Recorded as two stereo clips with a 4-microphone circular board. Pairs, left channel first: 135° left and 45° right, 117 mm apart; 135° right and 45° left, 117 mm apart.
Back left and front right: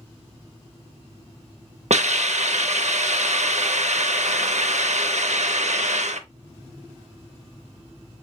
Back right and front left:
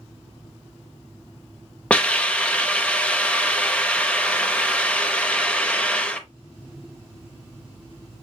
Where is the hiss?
55° right, 0.6 m.